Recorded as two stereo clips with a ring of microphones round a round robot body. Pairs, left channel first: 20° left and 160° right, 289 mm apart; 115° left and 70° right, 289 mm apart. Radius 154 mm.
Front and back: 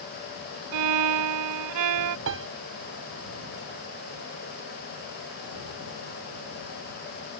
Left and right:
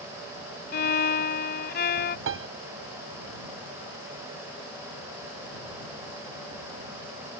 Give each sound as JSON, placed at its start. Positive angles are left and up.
{"t": 0.7, "sound": "a violin", "azimuth_deg": 170}
{"t": 2.3, "sound": "a piano", "azimuth_deg": -115}